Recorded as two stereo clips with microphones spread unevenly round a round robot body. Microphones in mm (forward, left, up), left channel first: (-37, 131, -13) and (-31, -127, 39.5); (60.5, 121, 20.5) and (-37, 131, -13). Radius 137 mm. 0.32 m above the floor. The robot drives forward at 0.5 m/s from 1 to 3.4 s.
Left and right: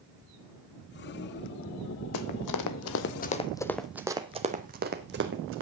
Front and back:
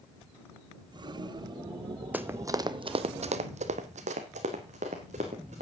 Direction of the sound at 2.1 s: 95° left.